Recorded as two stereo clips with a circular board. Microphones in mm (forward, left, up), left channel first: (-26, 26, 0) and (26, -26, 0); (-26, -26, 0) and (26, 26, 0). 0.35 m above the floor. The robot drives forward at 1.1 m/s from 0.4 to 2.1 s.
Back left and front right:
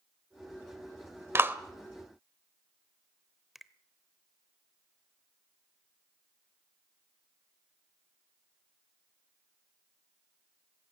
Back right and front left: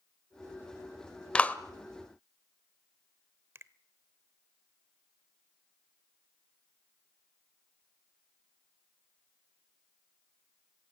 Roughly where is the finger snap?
Ahead left.